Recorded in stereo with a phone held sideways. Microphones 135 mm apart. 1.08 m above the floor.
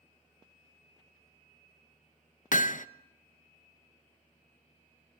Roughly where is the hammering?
Left.